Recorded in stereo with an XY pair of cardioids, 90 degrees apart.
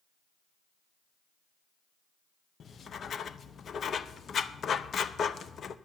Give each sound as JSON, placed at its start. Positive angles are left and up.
{"t": 2.6, "sound": "writing", "azimuth_deg": 55, "distance_m": 0.7}